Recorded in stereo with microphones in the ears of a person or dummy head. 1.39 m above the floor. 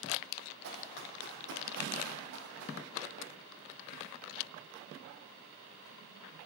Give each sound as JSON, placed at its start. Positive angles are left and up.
{"t": 0.6, "sound": "running footsteps", "side_deg": -70, "distance_m": 4.0}